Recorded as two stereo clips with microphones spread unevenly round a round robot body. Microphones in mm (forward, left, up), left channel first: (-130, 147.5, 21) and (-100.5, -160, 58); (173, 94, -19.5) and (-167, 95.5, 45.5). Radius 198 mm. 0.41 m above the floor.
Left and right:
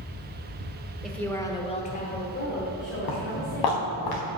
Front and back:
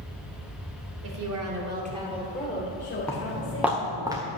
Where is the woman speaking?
Straight behind, 1.6 m; by 4.0 s 40° left, 3 m.